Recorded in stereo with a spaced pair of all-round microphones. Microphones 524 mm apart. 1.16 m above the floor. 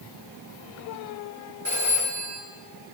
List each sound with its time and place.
1.6 s a phone ringing: 25° right (ahead or behind), 6 m